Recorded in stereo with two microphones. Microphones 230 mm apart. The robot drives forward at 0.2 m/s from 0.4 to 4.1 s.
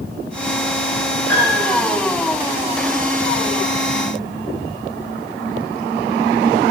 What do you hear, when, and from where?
1.3 s a piano: 10° left (ahead or behind), 9 m